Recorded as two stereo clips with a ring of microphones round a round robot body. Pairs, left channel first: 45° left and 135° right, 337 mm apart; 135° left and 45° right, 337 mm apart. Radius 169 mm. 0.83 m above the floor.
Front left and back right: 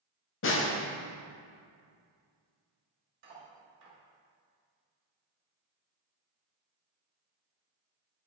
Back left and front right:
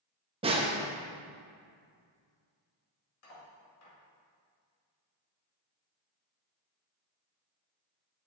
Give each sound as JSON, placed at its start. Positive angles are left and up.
{"t": 0.4, "sound": "a snare drum", "azimuth_deg": 20, "distance_m": 0.8}
{"t": 3.2, "sound": "cutlery clinking", "azimuth_deg": 170, "distance_m": 2.5}